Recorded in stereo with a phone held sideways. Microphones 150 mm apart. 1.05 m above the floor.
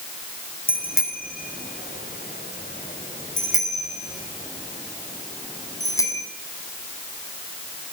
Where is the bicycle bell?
80° left, 5.5 m; by 6.3 s 20° left (ahead or behind), 6.5 m.